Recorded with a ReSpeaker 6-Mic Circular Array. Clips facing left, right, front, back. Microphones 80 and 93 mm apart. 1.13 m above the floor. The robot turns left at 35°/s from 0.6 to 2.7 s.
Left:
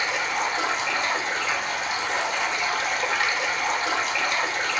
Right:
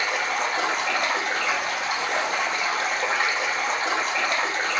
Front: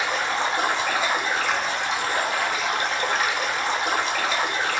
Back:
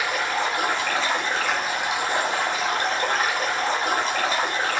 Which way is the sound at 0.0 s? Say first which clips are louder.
Right 1 dB, even; 60° right.